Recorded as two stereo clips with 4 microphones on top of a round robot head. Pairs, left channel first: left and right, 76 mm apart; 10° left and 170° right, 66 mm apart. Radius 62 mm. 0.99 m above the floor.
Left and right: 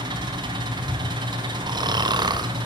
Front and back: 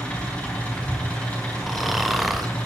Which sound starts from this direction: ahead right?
An engine running, at 0.0 s.